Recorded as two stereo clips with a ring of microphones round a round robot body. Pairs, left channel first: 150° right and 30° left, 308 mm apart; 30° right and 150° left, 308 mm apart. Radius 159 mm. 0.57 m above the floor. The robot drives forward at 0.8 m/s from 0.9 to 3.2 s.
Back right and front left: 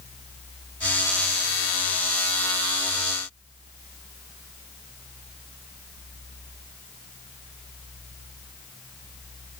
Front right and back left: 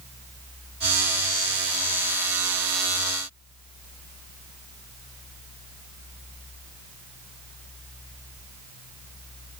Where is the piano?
I don't hear a piano.